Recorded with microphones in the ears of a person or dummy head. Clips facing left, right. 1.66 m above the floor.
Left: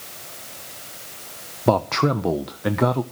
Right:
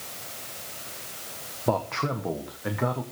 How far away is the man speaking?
About 1.0 m.